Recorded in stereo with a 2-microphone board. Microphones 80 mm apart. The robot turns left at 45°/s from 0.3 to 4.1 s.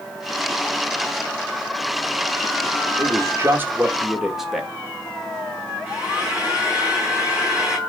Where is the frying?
10° right (ahead or behind), 5 m.